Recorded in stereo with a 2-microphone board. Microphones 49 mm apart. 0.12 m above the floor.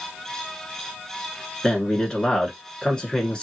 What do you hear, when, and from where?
1.6 s a man speaking: 15° left (ahead or behind), 1.4 m